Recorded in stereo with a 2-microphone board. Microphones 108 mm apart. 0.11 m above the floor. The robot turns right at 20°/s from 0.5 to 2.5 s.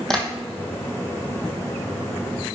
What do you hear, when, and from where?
0.1 s tapping: 5° left (ahead or behind), 1.3 m